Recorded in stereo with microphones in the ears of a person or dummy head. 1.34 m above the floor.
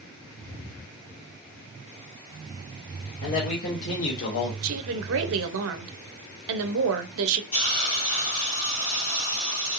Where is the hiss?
50° left (ahead or behind), 1.8 m.